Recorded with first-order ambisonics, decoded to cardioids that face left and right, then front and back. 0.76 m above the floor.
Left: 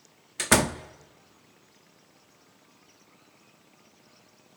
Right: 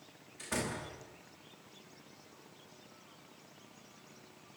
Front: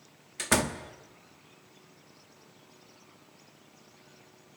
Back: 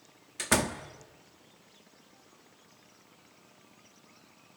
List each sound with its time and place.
0.4 s a door slam: 90° left, 1.0 m